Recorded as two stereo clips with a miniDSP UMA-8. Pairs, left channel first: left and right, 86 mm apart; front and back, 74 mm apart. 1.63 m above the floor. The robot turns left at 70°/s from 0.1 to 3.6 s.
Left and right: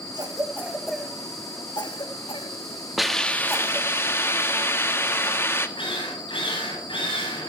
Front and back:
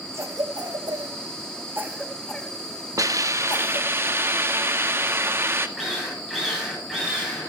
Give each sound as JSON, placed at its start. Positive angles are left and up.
{"t": 0.1, "sound": "a cough", "azimuth_deg": -125, "distance_m": 2.5}
{"t": 3.0, "sound": "a hiss", "azimuth_deg": -175, "distance_m": 1.4}
{"t": 5.8, "sound": "a drill", "azimuth_deg": 95, "distance_m": 10.0}